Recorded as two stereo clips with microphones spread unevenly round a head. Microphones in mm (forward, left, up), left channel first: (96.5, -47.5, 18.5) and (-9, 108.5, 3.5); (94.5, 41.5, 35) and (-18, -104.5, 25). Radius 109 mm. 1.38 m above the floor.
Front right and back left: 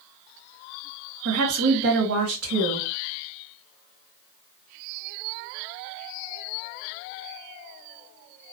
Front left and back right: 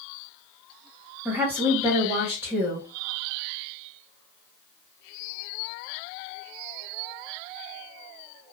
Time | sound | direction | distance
1.2 | a woman speaking | 150° left | 1.3 m